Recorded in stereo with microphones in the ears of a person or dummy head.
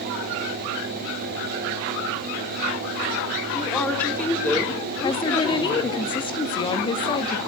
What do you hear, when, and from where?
3.5 s a woman speaking: 10° left (ahead or behind), 3.5 m; by 6.0 s 5° left (ahead or behind), 5 m
5.0 s a woman speaking: 25° left (ahead or behind), 1.4 m